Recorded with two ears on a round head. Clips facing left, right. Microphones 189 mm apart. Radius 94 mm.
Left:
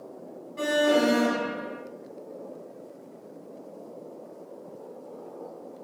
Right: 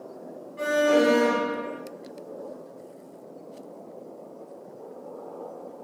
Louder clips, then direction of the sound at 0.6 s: Right 2 dB; 60° left (ahead or behind).